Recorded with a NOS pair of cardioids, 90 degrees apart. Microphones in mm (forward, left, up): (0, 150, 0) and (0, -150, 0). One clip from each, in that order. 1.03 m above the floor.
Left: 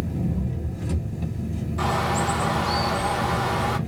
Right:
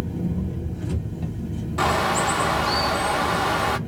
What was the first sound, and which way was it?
An engine running, 35° left.